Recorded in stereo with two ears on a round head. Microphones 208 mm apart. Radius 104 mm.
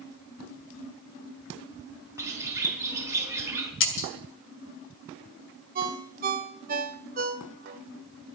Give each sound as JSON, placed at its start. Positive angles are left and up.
{"t": 2.2, "sound": "a bird", "side_deg": -10, "distance_m": 3.5}
{"t": 3.8, "sound": "breaking glass", "side_deg": 55, "distance_m": 2.5}
{"t": 5.8, "sound": "a ringtone", "side_deg": -40, "distance_m": 1.6}